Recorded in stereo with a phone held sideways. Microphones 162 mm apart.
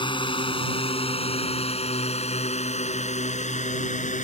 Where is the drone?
30° left (ahead or behind); by 4.2 s 50° left (ahead or behind).